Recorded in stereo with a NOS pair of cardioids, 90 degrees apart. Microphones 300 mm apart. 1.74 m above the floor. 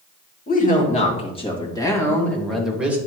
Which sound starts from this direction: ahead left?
A woman speaking, at 0.5 s.